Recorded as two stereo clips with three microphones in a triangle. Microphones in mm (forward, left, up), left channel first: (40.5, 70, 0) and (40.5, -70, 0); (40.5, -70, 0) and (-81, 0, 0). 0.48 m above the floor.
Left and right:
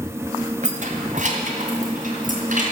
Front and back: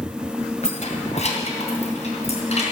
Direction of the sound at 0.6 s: 65° right.